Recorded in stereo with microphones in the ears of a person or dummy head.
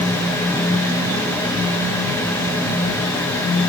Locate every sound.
Only background noise.